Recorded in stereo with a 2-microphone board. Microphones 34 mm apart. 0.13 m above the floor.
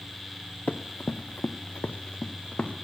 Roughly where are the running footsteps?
Left.